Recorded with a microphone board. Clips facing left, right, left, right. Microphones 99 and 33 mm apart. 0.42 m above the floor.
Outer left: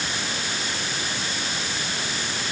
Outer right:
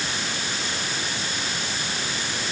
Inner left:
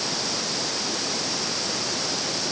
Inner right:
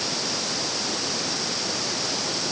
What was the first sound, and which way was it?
Only background noise.